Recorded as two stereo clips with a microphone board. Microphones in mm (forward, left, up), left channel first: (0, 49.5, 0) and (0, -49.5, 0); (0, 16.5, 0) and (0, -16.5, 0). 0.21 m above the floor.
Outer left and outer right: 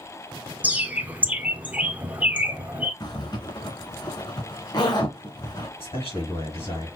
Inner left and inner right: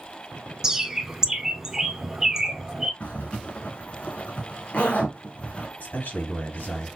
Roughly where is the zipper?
Left.